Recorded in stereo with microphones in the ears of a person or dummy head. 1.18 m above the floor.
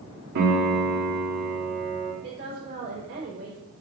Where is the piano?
60° right (ahead or behind), 2.5 m.